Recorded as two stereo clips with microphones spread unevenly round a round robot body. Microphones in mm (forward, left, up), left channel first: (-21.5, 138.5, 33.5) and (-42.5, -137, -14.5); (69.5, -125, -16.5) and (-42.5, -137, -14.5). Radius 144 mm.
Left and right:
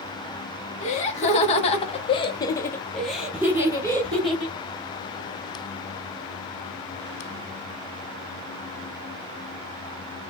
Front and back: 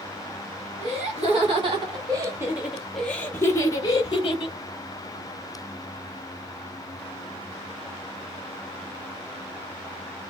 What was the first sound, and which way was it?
Laughter, 155° left.